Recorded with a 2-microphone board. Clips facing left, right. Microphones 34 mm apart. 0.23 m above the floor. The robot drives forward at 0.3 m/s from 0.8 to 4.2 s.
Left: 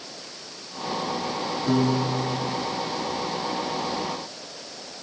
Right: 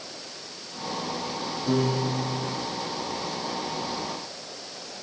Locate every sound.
1.7 s a piano: 10° left (ahead or behind), 6.5 m